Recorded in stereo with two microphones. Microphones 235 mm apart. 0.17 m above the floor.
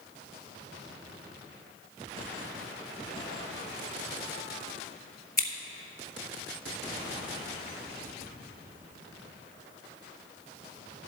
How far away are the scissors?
About 1.0 m.